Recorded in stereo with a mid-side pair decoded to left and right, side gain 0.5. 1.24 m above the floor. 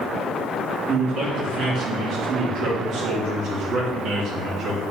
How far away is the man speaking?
About 2.5 m.